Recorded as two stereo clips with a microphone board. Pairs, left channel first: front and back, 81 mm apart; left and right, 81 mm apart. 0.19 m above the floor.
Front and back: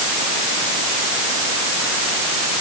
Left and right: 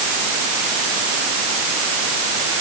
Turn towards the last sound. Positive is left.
No sound to turn to.